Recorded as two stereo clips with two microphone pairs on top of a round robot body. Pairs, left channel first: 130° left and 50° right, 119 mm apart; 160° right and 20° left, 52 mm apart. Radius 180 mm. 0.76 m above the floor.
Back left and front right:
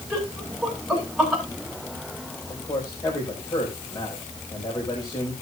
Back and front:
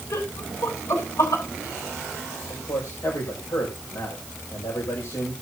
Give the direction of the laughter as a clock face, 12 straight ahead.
5 o'clock.